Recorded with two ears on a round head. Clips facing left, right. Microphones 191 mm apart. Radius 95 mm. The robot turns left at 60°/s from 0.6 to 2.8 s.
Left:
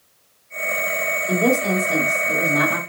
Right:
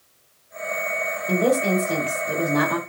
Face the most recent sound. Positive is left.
turn(degrees=-95)